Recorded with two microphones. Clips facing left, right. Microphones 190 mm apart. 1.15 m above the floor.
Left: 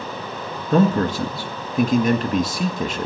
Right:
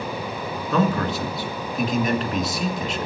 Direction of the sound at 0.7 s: 50° left (ahead or behind).